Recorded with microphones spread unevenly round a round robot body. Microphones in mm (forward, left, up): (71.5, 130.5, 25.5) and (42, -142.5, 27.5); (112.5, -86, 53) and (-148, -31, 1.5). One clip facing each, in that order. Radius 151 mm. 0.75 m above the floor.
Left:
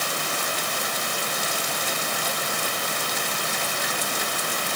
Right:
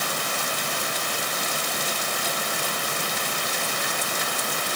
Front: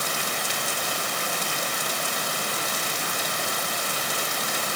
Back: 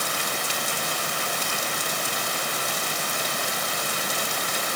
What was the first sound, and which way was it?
Only background noise.